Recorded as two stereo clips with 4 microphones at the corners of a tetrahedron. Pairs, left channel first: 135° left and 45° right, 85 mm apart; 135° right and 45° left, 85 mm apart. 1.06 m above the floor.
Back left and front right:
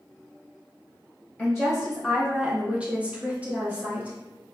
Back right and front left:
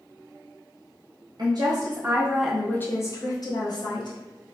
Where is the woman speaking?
50° left, 0.7 m; by 4.2 s 115° right, 1.0 m.